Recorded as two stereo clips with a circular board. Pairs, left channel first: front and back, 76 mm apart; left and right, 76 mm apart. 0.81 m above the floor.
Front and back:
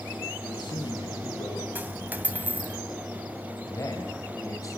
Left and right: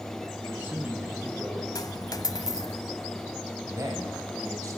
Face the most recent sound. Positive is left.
turn(degrees=-45)